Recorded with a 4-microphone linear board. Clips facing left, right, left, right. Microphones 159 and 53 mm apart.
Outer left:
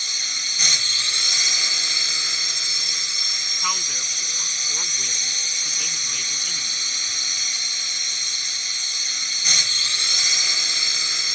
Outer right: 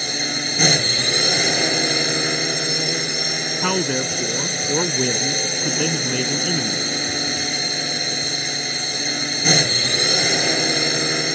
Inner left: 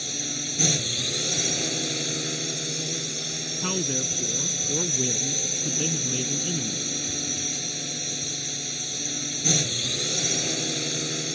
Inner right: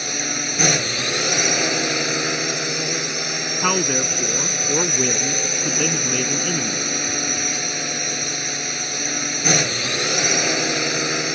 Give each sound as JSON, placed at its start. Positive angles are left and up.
{"t": 0.0, "sound": "a drone", "side_deg": -60}
{"t": 3.6, "sound": "a man speaking", "side_deg": -60}